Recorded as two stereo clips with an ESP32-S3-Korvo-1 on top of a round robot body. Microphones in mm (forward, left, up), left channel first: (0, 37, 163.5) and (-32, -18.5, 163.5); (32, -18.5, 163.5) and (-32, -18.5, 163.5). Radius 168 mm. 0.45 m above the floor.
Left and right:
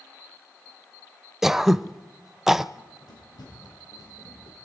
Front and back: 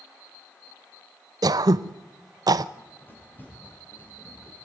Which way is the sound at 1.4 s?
155° left.